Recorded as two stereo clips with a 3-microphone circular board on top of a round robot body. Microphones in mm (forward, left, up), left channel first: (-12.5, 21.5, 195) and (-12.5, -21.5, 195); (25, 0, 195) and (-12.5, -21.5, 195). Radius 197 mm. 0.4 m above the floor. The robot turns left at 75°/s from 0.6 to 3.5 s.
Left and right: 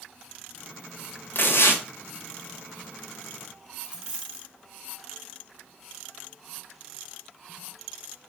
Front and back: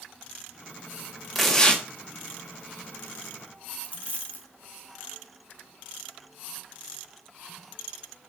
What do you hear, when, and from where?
1.4 s tearing paper: 120° left, 3 m; by 1.8 s 85° left, 3 m
3.8 s a dropped coin: 20° right, 0.9 m